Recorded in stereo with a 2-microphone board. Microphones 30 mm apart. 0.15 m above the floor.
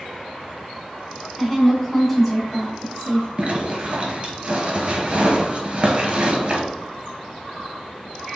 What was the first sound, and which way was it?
A woman speaking, 10° left (ahead or behind).